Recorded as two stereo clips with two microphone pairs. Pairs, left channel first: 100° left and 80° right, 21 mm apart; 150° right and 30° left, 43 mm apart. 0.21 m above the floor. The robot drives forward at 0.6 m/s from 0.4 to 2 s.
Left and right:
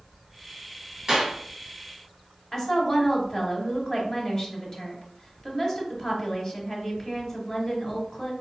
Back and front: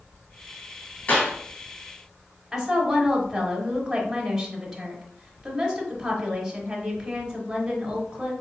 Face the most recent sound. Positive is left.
turn(degrees=115)